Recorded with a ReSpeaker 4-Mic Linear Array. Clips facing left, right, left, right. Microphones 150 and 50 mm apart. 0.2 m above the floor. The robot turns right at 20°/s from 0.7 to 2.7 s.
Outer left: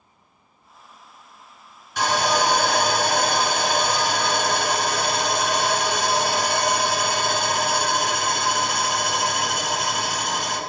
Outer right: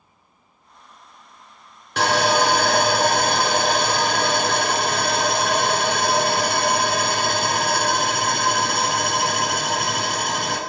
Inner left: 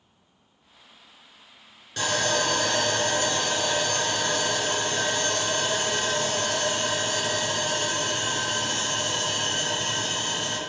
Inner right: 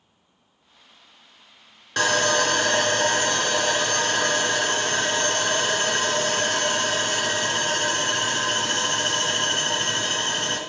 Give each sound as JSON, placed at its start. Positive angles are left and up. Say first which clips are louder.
{"t": 2.0, "sound": "sawing", "louder": "outer right 3 dB, inner right 5 dB", "side_deg": -70, "distance_m": 0.6}